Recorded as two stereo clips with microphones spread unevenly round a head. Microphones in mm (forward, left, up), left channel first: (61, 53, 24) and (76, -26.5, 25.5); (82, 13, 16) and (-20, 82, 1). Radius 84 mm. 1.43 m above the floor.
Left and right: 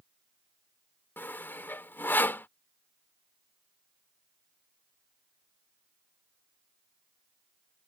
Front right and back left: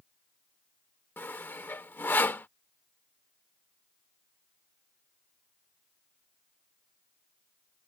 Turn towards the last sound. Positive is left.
turn(degrees=35)